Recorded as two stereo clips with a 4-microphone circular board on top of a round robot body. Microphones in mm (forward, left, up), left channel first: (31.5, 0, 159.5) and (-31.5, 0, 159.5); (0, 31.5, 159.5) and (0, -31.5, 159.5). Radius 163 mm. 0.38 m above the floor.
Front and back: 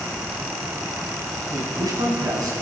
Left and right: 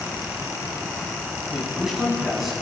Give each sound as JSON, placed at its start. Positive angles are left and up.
{"t": 1.5, "sound": "a man speaking", "azimuth_deg": -175, "distance_m": 3.5}